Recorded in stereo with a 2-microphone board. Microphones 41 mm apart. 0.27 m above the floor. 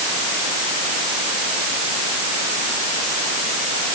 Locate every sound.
Only background noise.